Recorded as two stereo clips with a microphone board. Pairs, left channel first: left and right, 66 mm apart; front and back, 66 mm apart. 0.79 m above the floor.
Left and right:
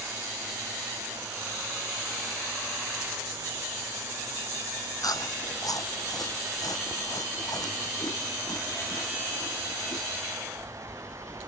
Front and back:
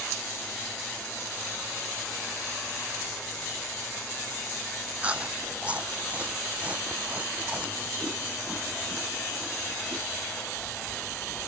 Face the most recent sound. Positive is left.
turn(degrees=110)